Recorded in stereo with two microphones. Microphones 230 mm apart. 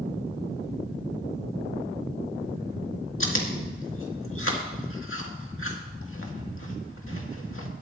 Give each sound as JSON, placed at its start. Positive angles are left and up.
{"t": 3.2, "sound": "chewing", "side_deg": 65, "distance_m": 2.0}